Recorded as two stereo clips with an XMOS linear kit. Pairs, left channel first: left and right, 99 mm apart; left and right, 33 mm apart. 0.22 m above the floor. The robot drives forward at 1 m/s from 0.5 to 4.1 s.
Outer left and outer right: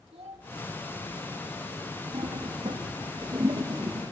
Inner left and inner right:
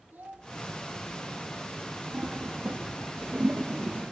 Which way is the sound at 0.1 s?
80° right.